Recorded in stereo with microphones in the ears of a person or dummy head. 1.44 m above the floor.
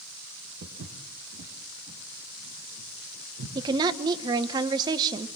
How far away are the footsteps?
About 4 m.